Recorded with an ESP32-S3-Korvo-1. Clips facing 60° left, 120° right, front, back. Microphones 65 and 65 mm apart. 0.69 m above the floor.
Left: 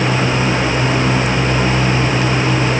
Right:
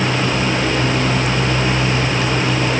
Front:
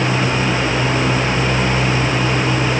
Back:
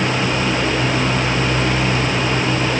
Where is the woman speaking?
No woman speaking in this recording.